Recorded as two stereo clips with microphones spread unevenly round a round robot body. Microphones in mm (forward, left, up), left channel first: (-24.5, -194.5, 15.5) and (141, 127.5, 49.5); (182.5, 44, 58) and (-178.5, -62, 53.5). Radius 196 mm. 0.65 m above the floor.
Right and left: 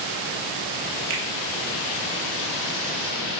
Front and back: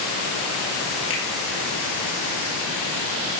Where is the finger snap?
75° left, 3.5 m.